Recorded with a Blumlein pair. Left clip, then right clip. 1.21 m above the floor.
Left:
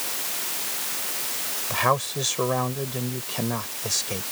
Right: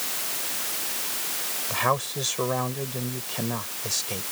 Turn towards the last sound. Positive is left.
turn(degrees=5)